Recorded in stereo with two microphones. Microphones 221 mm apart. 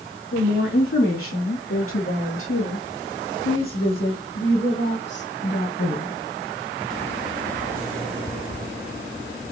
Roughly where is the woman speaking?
Left.